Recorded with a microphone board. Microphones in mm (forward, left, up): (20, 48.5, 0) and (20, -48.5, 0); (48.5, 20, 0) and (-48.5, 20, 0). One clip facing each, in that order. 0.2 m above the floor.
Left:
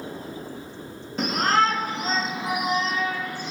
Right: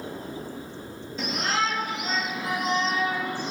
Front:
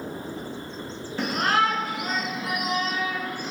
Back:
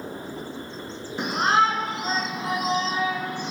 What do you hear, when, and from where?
1.2 s a shout: 110° left, 2 m; by 3.5 s 130° right, 1.3 m